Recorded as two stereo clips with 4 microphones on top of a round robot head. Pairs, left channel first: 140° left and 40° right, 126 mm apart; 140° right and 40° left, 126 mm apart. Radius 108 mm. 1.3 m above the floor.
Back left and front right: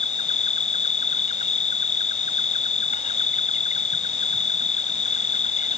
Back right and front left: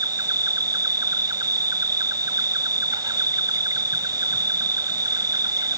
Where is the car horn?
No car horn in this recording.